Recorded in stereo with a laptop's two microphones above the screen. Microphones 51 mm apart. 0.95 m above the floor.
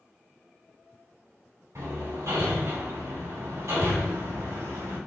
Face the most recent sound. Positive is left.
turn(degrees=-70)  # may be behind; listen again after turning